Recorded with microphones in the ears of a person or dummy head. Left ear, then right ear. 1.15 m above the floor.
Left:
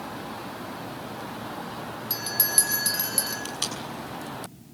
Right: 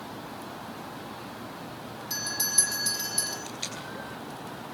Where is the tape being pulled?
70° left (ahead or behind), 7.5 m.